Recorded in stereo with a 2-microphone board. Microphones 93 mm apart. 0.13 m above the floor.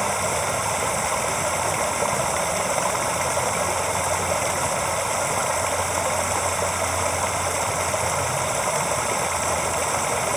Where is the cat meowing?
I don't hear a cat meowing.